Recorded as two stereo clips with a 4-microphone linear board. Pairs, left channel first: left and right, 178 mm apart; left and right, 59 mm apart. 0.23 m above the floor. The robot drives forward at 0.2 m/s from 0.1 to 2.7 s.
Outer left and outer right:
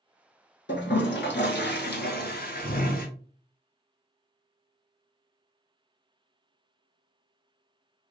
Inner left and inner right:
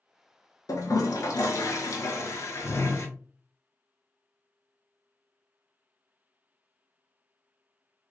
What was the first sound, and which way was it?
A toilet flushing, 85° left.